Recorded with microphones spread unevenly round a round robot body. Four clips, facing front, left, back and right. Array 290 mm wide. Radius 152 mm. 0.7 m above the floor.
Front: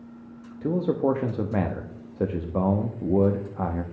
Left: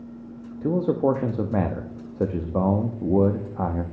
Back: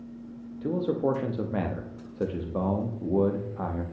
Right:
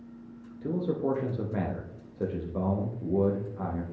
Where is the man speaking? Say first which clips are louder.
Left 8 dB, front 3 dB; 80° left, 0.8 m.